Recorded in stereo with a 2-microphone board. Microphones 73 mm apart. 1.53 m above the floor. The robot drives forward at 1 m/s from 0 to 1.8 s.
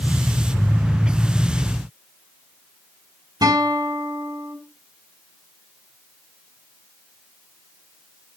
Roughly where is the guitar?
Right.